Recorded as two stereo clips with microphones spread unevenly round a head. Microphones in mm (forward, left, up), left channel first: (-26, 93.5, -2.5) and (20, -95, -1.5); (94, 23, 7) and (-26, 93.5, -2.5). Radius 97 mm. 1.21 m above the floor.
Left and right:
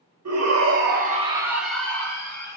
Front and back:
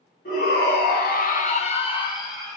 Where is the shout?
70° right, 1.0 m; by 2.6 s 35° left, 1.6 m.